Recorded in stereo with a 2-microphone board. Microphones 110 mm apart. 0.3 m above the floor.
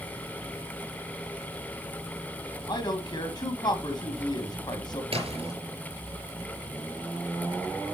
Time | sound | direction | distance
2.7 | a man speaking | 45° left (ahead or behind) | 2 m
5.1 | a splash | 70° right (ahead or behind) | 4.5 m